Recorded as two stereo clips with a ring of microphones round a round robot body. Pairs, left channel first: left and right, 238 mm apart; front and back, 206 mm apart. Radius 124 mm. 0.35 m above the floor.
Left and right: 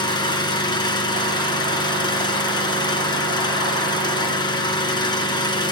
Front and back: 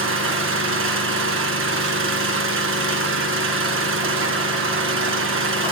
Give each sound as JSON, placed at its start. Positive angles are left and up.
{"t": 0.0, "sound": "an engine running", "azimuth_deg": 160, "distance_m": 1.9}